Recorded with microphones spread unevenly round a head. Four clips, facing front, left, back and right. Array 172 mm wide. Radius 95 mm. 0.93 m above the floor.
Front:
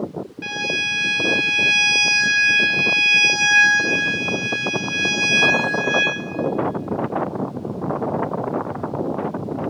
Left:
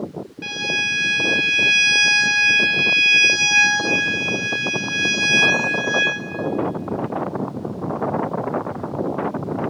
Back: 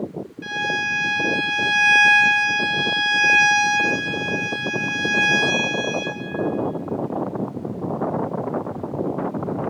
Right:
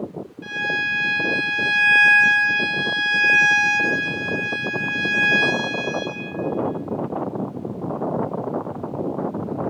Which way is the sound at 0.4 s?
70° left.